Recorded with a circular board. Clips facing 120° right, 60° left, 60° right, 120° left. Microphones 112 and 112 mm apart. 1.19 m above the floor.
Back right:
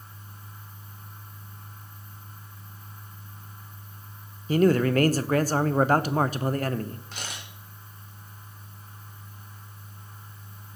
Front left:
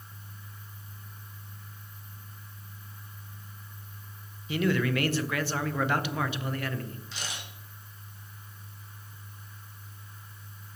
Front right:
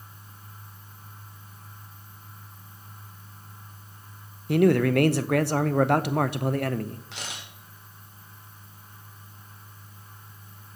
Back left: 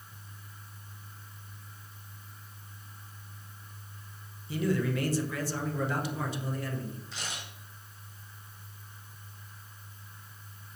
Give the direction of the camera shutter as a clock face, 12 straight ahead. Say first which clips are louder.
Back right 1 dB, front right 1 dB; 3 o'clock.